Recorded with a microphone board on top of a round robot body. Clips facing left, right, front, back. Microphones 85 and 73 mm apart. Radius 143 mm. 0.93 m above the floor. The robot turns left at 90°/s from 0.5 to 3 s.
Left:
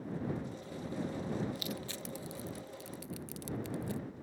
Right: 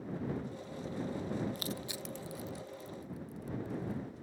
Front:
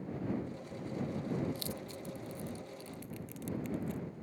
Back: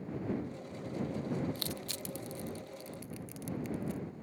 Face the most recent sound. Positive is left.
turn(degrees=95)